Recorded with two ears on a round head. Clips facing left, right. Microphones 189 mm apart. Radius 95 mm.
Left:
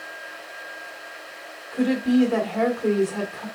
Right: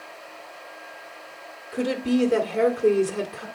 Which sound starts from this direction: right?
A woman speaking, at 1.7 s.